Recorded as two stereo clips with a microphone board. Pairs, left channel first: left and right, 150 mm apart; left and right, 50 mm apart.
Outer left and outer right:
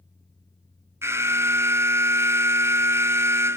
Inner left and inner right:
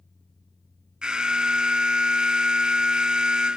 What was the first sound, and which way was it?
An alarm, 15° right (ahead or behind).